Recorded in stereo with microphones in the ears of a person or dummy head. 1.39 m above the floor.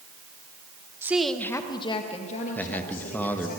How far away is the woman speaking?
About 1.1 m.